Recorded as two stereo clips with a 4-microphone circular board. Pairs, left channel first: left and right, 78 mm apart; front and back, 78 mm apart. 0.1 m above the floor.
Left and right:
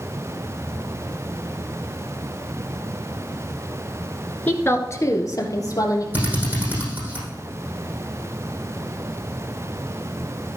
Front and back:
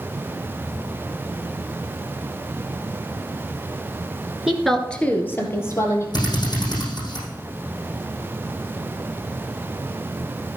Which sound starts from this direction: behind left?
A woman speaking, at 4.5 s.